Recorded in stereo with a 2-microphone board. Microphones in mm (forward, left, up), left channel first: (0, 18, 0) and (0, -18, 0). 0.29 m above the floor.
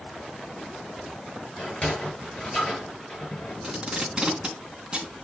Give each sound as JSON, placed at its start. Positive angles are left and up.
{"t": 1.6, "sound": "a sliding door", "side_deg": 35, "distance_m": 6.5}
{"t": 3.6, "sound": "tape being pulled", "side_deg": -20, "distance_m": 3.5}